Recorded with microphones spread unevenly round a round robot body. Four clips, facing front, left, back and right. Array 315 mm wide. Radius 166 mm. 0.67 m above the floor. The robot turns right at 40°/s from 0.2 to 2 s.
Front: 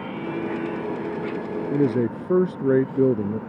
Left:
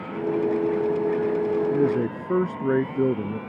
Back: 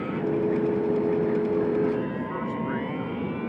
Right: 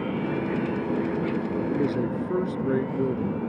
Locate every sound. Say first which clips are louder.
1.7 s a man speaking: left 3 dB, front 3 dB; 10° left; by 3.4 s 20° left